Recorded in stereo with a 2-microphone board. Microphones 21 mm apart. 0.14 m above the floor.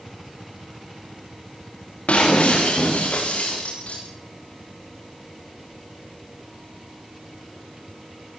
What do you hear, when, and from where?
2.1 s breaking glass: 85° left, 9.5 m